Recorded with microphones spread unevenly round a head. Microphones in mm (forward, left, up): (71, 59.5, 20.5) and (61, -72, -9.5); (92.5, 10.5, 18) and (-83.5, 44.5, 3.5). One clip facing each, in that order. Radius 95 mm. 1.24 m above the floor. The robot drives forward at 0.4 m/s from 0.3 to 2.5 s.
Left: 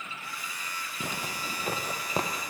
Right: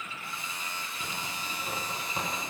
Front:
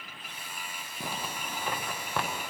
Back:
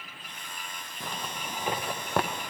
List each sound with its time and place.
1.0 s a zipper: 65° left, 0.5 m; by 2.3 s 125° left, 0.6 m